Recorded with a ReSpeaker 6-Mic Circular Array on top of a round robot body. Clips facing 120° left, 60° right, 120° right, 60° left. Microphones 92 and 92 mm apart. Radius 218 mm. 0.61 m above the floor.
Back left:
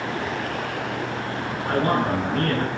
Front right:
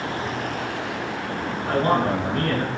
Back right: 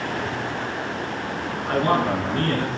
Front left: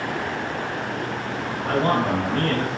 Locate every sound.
1.6 s a man speaking: 15° left, 4 m